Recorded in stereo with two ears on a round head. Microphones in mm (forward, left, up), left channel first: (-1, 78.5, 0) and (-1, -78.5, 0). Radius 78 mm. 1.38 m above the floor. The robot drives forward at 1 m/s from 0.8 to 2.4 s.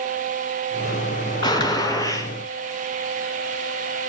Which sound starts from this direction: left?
A gunshot, at 1.4 s.